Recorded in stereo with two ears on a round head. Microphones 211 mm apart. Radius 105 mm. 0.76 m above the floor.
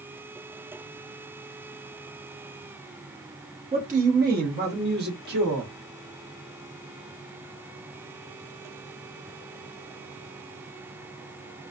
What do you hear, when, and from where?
3.7 s a man speaking: 30° right (ahead or behind), 0.7 m; by 5.7 s 45° right (ahead or behind), 1.6 m